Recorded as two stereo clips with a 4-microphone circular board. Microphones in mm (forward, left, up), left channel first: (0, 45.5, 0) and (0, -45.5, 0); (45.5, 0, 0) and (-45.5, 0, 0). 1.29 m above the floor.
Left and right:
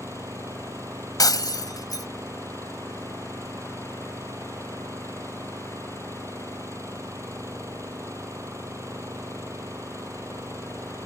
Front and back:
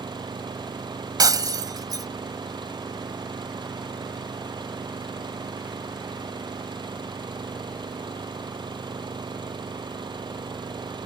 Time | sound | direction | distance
0.0 | an engine running | 150° right | ?
1.2 | breaking glass | 135° left | ?